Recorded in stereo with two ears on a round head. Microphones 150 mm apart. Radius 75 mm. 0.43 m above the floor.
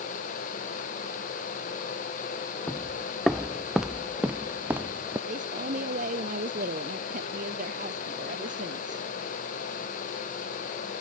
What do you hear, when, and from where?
2.7 s footsteps: 10° left (ahead or behind); by 5.2 s 15° right (ahead or behind)
5.3 s a man speaking: 50° right (ahead or behind)